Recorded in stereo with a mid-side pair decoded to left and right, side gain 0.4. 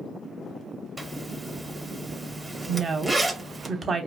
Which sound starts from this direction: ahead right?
A woman speaking, at 2.7 s.